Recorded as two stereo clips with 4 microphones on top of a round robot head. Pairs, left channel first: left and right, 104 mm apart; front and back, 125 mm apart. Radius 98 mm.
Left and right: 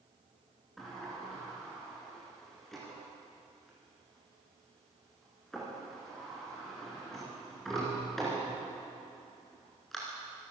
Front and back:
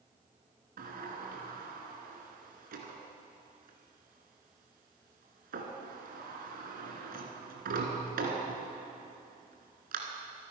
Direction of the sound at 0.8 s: Straight behind.